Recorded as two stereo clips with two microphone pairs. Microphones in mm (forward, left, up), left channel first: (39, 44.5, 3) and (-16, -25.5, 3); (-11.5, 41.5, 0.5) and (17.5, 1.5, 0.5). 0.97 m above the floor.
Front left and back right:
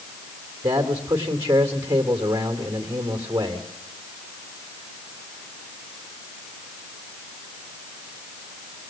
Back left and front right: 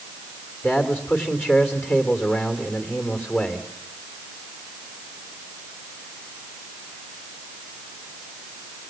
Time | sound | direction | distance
0.6 | a man speaking | 175° left | 2.5 m